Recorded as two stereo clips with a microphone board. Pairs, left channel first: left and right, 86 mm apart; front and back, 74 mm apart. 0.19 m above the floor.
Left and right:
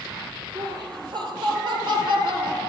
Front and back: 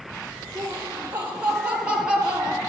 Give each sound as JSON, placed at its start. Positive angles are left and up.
{"t": 0.6, "sound": "laughter", "azimuth_deg": -115, "distance_m": 4.0}